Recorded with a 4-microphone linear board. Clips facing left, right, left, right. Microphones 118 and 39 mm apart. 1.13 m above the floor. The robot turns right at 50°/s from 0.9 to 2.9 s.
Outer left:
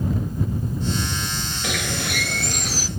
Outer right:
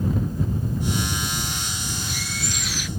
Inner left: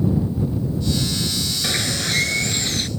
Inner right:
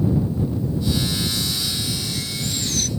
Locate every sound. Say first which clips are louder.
1.6 s a bird: outer left 6 dB, inner left 4 dB; 85° left; by 2.9 s 150° left